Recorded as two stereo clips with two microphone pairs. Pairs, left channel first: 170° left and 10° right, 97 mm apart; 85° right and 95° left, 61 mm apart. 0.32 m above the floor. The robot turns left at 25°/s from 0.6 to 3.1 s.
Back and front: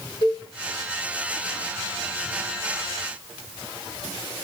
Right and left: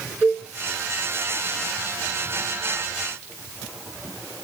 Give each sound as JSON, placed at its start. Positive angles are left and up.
{"t": 0.2, "sound": "a cowbell", "azimuth_deg": -150, "distance_m": 6.0}